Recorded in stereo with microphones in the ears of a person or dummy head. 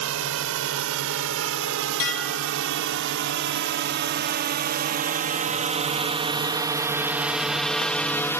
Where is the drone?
85° right; by 8.4 s 5° left (ahead or behind).